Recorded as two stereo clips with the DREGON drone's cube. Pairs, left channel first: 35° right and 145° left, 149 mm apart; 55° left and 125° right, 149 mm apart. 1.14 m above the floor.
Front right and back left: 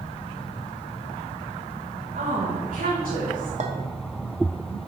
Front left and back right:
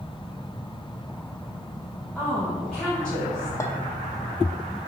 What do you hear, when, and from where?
2.1 s a woman speaking: 140° left, 1.3 m
3.6 s a clink: 125° left, 0.7 m